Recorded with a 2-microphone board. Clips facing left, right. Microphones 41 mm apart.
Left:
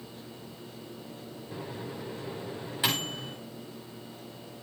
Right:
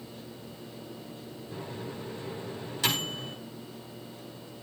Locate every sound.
1.5 s a microwave: 20° left (ahead or behind), 6 m